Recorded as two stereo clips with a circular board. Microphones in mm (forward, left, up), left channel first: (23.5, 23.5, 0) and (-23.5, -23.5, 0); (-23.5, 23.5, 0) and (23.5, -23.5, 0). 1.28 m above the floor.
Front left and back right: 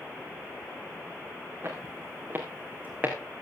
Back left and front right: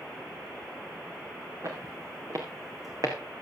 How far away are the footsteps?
About 5 m.